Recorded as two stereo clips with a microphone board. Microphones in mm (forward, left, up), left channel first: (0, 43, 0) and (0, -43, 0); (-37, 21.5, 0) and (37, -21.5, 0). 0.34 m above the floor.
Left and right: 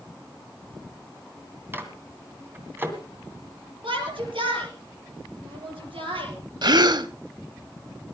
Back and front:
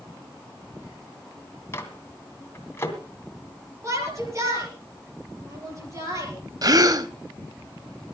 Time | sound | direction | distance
1.7 | a microwave | 155° right | 2 m
3.8 | a shout | 85° right | 7 m
6.6 | a gasp | 65° right | 0.7 m